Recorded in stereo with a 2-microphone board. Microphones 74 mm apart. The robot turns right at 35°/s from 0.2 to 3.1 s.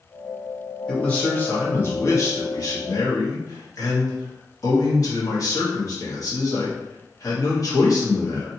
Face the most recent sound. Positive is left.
turn(degrees=95)